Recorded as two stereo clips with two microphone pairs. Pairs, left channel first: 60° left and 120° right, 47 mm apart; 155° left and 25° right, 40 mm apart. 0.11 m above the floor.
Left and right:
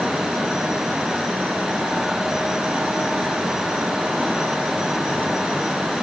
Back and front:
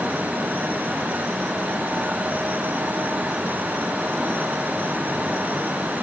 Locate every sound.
Only background noise.